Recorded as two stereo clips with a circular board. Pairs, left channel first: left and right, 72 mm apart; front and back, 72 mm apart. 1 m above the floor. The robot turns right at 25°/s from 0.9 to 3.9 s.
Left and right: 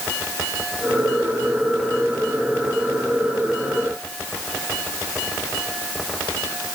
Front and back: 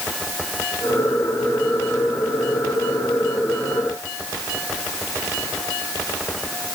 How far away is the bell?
I don't hear a bell.